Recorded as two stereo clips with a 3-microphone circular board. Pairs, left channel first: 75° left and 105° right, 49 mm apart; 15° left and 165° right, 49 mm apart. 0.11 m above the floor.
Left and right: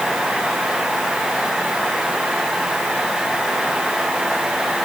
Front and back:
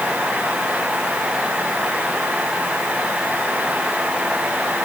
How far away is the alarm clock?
No alarm clock in this recording.